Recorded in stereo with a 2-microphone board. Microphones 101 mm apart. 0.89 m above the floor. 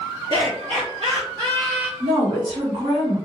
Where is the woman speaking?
65° right (ahead or behind), 1.7 m.